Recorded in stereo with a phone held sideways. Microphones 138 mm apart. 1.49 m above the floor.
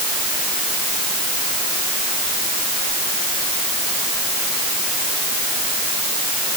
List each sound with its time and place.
Only background noise.